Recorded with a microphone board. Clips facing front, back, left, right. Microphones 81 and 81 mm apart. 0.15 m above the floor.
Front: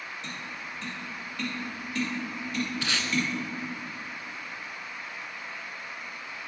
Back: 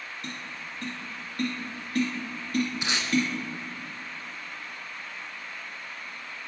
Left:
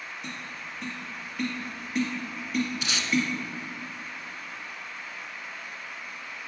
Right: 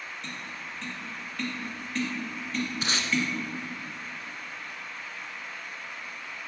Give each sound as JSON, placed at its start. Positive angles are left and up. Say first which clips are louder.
{"t": 0.2, "sound": "tapping", "louder": "even, even", "azimuth_deg": 175, "distance_m": 2.0}
{"t": 2.8, "sound": "tape being pulled", "louder": "even, right 2 dB", "azimuth_deg": -115, "distance_m": 0.7}